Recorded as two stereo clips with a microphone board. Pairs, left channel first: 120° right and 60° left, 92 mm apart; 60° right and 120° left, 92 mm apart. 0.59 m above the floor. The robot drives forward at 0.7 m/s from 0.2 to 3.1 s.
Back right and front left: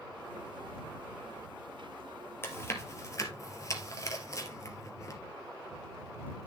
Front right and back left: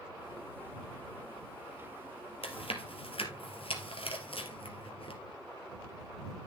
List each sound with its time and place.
2.4 s chewing: 55° right, 2.5 m; by 5.2 s 65° right, 2.5 m